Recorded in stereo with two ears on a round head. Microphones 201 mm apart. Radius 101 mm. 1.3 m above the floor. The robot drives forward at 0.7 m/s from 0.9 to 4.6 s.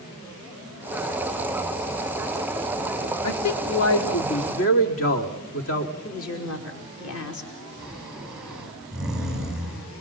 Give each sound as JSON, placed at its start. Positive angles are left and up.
{"t": 3.2, "sound": "a man speaking", "side_deg": 80, "distance_m": 2.5}
{"t": 6.0, "sound": "a woman speaking", "side_deg": 70, "distance_m": 4.5}
{"t": 7.8, "sound": "snoring", "side_deg": -5, "distance_m": 5.0}